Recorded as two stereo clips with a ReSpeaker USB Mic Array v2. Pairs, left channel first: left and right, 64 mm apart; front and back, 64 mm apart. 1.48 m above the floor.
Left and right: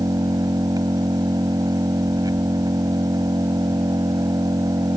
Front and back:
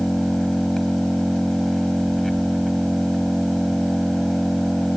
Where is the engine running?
85° right.